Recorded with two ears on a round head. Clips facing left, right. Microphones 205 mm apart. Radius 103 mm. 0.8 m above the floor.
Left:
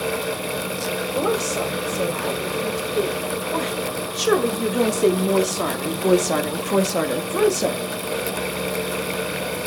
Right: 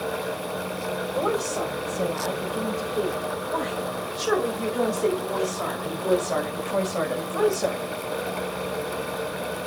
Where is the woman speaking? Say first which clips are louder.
Left 3 dB; 30° left (ahead or behind), 5 m; by 7.8 s 40° left (ahead or behind), 1.6 m.